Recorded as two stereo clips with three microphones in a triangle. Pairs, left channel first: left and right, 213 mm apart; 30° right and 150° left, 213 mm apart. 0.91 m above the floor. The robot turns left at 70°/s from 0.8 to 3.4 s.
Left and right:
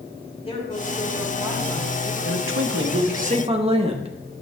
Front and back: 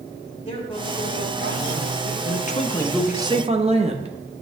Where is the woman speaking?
30° left, 3.5 m; by 2.1 s 65° right, 3.5 m.